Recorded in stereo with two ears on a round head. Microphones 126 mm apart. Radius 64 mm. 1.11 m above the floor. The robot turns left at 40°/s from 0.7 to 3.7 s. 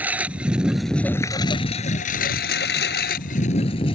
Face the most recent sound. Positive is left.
turn(degrees=35)  # may be behind; listen again after turning